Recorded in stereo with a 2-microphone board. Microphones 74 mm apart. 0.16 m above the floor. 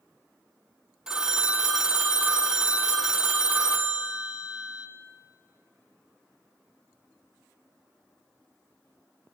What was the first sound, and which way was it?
A phone ringing, 10° right (ahead or behind).